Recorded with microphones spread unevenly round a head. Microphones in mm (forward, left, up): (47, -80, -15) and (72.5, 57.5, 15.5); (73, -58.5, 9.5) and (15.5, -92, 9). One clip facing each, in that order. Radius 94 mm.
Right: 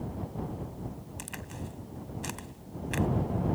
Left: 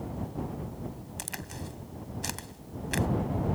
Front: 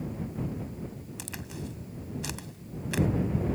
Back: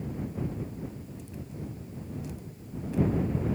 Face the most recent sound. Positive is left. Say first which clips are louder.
# left 1 dB, front 2 dB
turn(degrees=35)